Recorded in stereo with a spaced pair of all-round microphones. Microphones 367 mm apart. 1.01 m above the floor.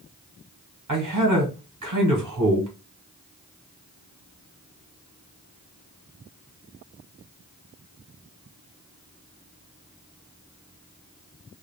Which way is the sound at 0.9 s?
55° right (ahead or behind).